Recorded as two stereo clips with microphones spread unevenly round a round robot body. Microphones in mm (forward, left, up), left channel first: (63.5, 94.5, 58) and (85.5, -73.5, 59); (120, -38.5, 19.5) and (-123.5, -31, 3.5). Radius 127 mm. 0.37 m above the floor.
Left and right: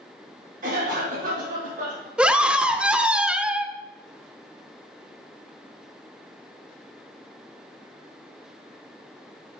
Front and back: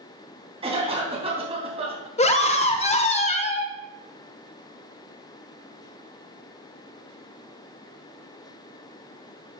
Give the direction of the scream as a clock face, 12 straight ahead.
12 o'clock.